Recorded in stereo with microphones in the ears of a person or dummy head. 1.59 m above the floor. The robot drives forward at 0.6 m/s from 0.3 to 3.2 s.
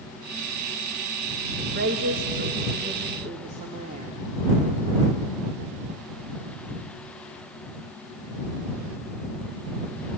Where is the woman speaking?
55° right (ahead or behind), 2 m; by 4.2 s 40° right (ahead or behind), 2.5 m.